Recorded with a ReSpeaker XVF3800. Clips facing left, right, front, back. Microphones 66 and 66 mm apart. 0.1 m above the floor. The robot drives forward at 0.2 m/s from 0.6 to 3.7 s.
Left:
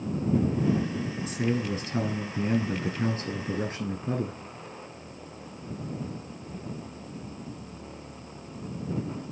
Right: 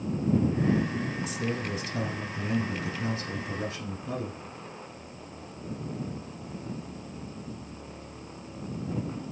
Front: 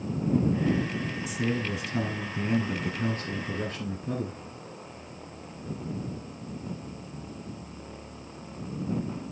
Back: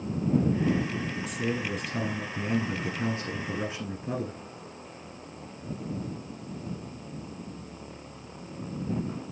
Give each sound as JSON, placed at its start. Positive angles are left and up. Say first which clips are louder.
{"t": 1.3, "sound": "a man speaking", "louder": "left 3 dB, front 2 dB", "azimuth_deg": 80, "distance_m": 1.4}